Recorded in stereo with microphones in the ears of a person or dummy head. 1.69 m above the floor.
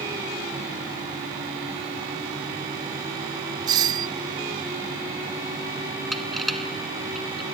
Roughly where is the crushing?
Centre.